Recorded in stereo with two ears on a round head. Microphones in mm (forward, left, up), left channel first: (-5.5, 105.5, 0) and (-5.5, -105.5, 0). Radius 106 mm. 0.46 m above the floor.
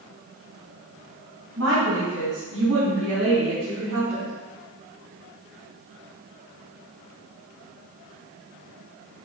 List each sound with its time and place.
1.6 s a woman speaking: 65° right (ahead or behind), 3.5 m; by 4.3 s 70° right (ahead or behind), 5 m